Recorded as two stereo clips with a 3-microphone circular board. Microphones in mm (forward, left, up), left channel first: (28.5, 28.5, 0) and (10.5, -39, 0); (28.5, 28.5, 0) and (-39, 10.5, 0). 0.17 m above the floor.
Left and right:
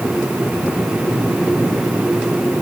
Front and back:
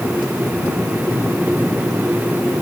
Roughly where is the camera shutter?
No camera shutter in this recording.